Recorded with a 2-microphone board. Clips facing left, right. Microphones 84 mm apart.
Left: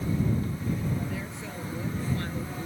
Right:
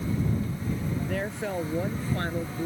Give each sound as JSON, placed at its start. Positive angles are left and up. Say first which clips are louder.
{"t": 1.1, "sound": "a woman speaking", "louder": "right 6 dB", "side_deg": -65}